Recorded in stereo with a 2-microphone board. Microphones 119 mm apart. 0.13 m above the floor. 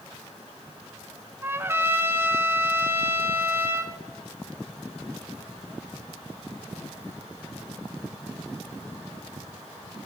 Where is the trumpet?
20° right (ahead or behind), 0.7 m.